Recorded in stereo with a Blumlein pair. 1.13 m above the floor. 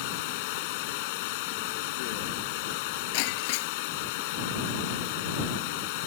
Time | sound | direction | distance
0.0 | running water | 50° left | ?
3.1 | breaking glass | 45° left | ?